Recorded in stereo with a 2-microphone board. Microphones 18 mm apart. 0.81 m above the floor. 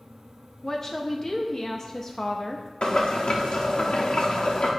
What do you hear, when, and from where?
0.6 s a woman speaking: 25° left (ahead or behind), 0.8 m
2.8 s boiling: 70° left (ahead or behind), 1.6 m